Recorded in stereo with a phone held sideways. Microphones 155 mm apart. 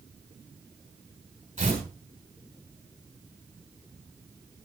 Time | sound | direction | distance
1.6 | tearing paper | 50° right (ahead or behind) | 6.5 m